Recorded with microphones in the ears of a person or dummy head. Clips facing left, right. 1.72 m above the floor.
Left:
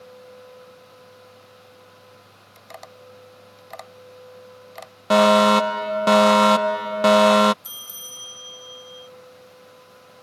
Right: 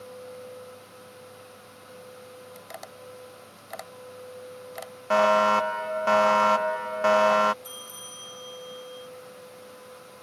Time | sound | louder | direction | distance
2.5 | tapping | even | 5° right (ahead or behind) | ?
5.1 | a fire alarm | left 6 dB | 50° left (ahead or behind) | ?
7.6 | a bell | right 4 dB | 25° left (ahead or behind) | ?